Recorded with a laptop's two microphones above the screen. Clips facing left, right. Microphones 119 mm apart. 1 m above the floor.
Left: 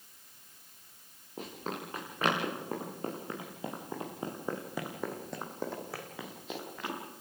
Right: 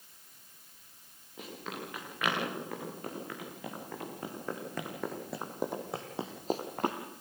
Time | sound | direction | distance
1.4 | running footsteps | 40° left (ahead or behind) | 8 m